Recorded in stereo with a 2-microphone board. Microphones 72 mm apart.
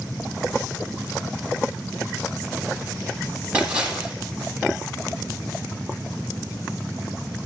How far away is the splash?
About 9.5 m.